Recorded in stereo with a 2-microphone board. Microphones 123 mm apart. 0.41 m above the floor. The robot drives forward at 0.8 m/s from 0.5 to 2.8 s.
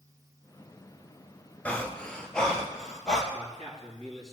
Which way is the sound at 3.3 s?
5° left (ahead or behind).